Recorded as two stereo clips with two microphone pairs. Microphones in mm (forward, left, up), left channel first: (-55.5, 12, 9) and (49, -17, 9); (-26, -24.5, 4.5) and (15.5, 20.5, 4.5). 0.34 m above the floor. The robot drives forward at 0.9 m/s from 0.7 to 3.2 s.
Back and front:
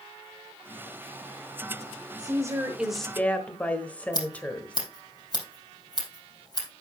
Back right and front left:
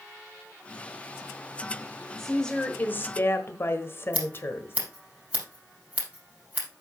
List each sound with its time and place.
2.2 s a woman speaking: 45° right, 1.1 m; by 4.8 s 125° right, 1.0 m
4.1 s scissors: 115° left, 4 m